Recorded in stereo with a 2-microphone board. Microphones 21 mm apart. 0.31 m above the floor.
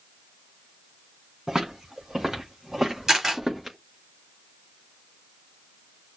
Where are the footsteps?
35° right (ahead or behind), 4.5 m; by 3.8 s 15° right (ahead or behind), 4.5 m.